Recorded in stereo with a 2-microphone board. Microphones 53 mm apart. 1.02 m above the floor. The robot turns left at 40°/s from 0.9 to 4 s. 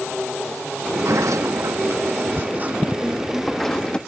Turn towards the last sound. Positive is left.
turn(degrees=160)